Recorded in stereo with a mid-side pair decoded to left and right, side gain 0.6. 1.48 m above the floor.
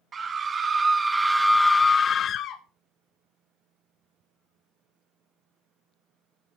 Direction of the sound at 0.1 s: 40° right.